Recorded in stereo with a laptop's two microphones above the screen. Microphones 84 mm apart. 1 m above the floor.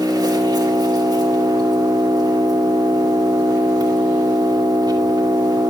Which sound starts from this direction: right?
An engine running, at 0.0 s.